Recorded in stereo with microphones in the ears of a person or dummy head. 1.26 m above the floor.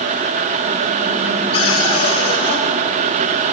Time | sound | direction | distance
1.5 | a cupboard door | 30° left (ahead or behind) | 1.7 m